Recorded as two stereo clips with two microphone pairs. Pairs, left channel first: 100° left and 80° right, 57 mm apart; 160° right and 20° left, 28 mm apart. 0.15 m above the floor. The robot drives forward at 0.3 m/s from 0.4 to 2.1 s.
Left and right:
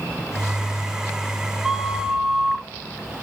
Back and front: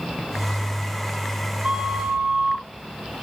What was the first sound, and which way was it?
A flute, 5° left.